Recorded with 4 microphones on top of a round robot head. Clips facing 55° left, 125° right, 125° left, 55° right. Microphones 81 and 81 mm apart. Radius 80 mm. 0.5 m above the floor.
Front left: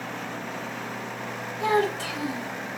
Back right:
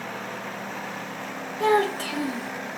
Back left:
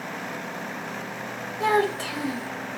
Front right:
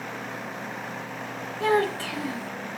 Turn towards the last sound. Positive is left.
turn(degrees=-165)